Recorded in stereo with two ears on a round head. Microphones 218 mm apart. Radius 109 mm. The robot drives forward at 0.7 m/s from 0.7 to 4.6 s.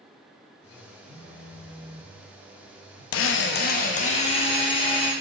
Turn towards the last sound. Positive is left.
turn(degrees=20)  # may be behind; listen again after turning